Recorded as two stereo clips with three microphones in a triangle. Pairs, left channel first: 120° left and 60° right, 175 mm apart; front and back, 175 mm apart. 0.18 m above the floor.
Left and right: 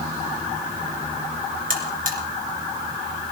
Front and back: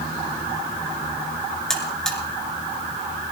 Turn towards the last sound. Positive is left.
turn(degrees=-85)